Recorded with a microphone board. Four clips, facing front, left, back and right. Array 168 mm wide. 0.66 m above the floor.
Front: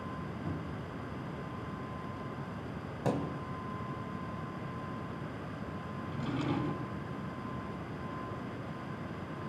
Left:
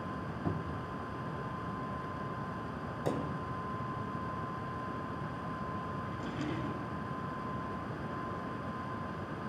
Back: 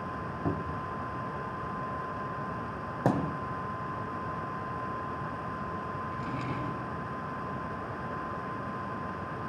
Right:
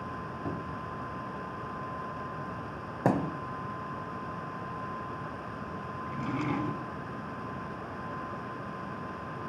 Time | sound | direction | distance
0.5 | a cupboard door | 175° right | 1.7 m
3.0 | a thud | 125° right | 1.1 m
6.0 | a drawer | 70° right | 3.5 m